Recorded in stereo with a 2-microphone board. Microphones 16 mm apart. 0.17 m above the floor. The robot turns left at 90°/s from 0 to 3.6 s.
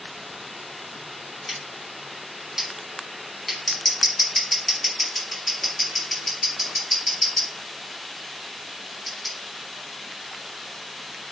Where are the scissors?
Centre (ahead or behind), 1.5 m; by 9.3 s 5° left (ahead or behind), 1.5 m.